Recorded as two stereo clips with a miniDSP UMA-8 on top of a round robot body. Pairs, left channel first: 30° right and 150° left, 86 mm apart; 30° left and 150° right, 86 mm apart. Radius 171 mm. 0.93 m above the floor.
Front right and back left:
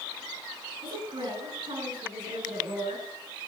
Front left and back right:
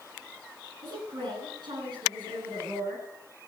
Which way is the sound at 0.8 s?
175° left.